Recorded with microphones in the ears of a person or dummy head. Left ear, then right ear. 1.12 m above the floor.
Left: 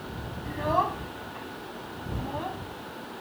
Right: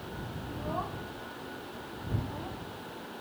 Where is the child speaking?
55° left (ahead or behind); by 2.6 s 35° left (ahead or behind).